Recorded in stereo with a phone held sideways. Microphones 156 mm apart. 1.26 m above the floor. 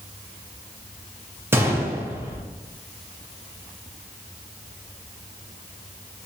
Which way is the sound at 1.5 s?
15° right (ahead or behind).